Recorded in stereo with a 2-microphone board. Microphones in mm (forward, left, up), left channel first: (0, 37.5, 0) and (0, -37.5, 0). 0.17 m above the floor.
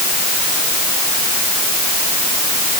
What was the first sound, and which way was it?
Only background noise.